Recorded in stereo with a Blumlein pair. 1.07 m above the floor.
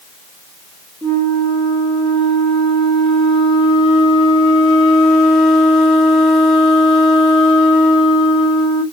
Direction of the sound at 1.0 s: 20° left.